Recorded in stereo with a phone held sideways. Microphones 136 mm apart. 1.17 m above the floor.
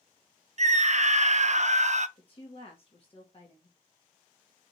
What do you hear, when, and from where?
0.6 s a scream: 55° right (ahead or behind), 0.5 m
2.2 s a woman speaking: 40° left (ahead or behind), 1.1 m